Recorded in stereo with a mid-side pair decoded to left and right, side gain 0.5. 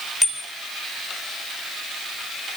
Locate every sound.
0.2 s a bicycle bell: straight ahead, 6.5 m